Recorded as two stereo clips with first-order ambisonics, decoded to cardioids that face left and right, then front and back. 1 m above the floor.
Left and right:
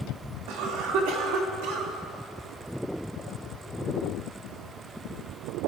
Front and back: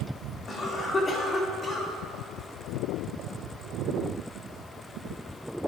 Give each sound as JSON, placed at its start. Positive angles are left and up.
{"t": 0.5, "sound": "a cough", "azimuth_deg": -70, "distance_m": 2.0}